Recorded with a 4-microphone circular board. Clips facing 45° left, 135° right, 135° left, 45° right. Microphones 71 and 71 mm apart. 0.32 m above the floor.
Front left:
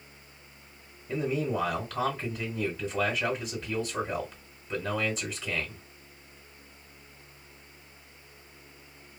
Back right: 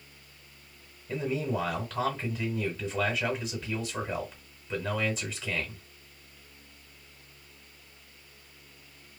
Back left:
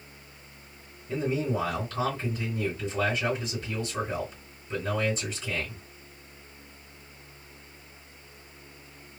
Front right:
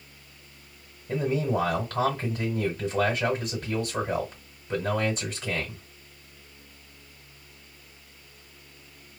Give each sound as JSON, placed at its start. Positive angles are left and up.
{"t": 1.1, "sound": "a man speaking", "azimuth_deg": -40, "distance_m": 1.7}